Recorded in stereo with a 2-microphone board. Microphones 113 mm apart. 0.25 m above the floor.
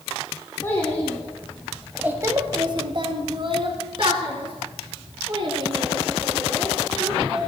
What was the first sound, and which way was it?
A child speaking, 25° left (ahead or behind).